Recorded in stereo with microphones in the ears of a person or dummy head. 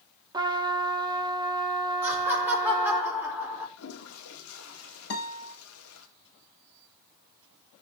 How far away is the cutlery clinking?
No cutlery clinking in this recording.